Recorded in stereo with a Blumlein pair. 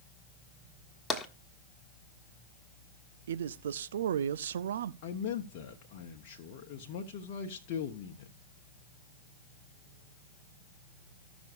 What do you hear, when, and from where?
1.1 s tapping: 10° left, 1.4 m
3.3 s a man speaking: 60° right, 0.6 m
5.0 s a man speaking: 45° left, 1.1 m